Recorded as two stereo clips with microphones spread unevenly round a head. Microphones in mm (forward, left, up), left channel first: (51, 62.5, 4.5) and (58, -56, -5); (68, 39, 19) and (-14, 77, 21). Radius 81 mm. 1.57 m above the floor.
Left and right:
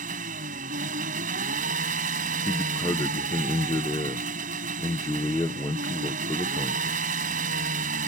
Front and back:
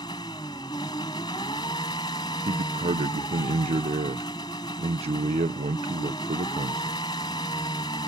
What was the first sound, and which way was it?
An engine running, 90° right.